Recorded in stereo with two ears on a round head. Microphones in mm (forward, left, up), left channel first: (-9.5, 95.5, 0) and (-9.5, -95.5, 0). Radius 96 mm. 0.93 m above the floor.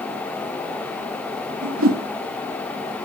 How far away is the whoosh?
About 1.1 m.